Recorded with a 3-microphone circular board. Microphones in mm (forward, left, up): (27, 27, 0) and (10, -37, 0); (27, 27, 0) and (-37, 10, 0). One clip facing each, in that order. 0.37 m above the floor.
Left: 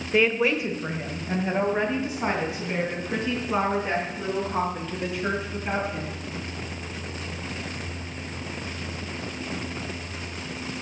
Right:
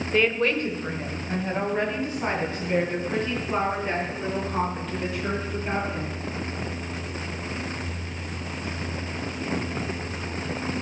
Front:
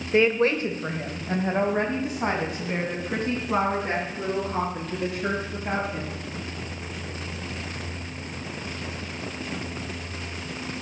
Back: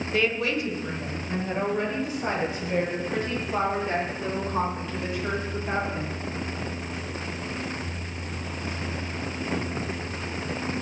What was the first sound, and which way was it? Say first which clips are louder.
A woman speaking: left 1 dB, front 6 dB; straight ahead.